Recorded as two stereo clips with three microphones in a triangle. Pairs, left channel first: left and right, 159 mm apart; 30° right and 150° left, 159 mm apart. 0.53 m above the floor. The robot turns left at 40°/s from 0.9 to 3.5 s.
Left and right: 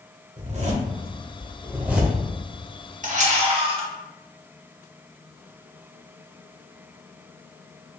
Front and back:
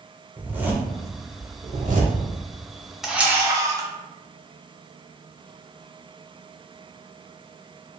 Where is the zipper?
130° right, 0.6 m; by 2.2 s 175° left, 0.6 m.